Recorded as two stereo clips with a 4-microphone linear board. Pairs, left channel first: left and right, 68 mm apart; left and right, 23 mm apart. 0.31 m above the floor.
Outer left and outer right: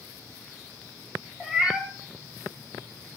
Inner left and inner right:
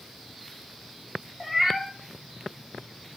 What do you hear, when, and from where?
1.4 s a cat meowing: 15° right (ahead or behind), 1.3 m